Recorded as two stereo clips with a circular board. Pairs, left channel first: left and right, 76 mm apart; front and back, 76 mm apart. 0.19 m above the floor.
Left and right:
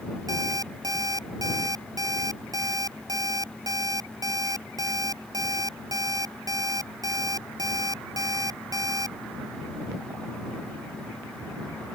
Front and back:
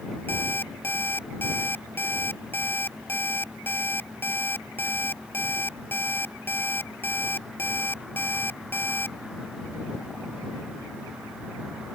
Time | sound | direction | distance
0.3 | an alarm clock | 60° right | ?